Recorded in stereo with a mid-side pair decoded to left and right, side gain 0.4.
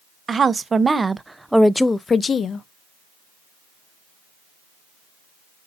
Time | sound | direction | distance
0.3 | a woman speaking | 40° right | 1.0 m